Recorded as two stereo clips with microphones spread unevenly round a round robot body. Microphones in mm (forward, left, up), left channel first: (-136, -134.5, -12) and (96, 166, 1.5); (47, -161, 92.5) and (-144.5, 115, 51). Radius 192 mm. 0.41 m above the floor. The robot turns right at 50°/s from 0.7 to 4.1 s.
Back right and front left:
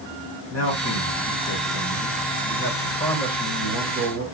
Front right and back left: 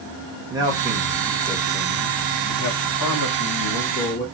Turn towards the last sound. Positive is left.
turn(degrees=5)